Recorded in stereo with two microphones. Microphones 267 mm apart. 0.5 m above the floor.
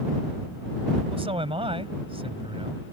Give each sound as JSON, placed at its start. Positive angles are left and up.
{"t": 1.1, "sound": "a man speaking", "side_deg": -20}